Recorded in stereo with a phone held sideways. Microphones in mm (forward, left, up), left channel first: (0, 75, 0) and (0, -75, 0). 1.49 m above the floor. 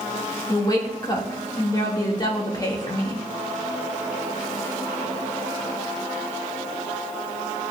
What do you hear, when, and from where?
0.5 s a woman speaking: 30° left (ahead or behind), 2 m